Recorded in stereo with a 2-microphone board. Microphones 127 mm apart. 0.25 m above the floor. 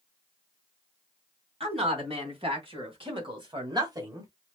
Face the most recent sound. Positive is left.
turn(degrees=-25)  # may be behind; listen again after turning